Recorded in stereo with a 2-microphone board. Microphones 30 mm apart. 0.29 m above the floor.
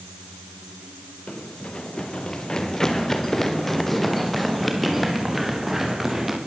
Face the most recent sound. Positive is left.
turn(degrees=-10)  # may be behind; listen again after turning